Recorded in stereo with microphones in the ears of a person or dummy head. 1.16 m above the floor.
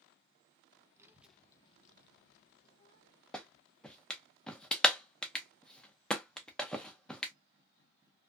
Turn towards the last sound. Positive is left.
turn(degrees=10)  # may be behind; listen again after turning